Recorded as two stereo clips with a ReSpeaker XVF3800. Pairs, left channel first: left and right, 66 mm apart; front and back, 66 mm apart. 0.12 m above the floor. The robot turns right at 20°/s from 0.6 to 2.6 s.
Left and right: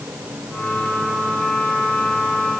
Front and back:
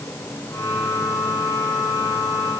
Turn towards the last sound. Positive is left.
No sound to turn to.